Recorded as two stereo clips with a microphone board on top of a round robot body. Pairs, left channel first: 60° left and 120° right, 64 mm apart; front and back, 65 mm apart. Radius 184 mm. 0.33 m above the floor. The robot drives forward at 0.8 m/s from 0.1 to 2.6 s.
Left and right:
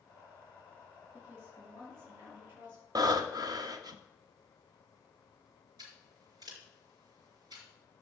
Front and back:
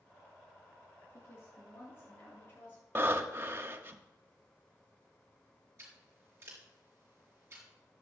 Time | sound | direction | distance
1.1 | a woman speaking | 55° right | 7 m
3.0 | breathing | 125° right | 1.2 m
5.8 | scissors | 130° right | 4.5 m